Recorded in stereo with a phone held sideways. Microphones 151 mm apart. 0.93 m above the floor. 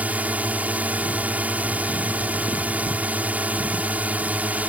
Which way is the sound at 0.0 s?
10° right (ahead or behind).